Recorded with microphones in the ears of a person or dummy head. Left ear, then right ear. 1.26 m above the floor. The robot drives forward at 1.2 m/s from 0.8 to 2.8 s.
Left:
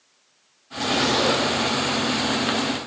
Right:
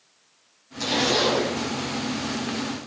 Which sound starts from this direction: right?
A zipper, at 0.8 s.